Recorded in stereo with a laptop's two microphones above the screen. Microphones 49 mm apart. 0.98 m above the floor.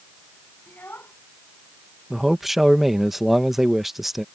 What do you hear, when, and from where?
0.7 s a child speaking: 45° left (ahead or behind)
2.1 s a man speaking: 5° right (ahead or behind)